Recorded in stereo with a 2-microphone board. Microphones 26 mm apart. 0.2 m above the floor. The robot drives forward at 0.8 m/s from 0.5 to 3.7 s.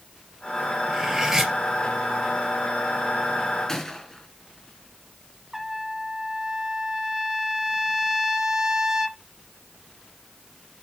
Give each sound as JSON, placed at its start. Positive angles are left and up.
{"t": 0.9, "sound": "cutlery clinking", "side_deg": -15, "distance_m": 2.5}
{"t": 3.7, "sound": "a gunshot", "side_deg": 15, "distance_m": 4.0}
{"t": 5.5, "sound": "a trumpet", "side_deg": -15, "distance_m": 1.5}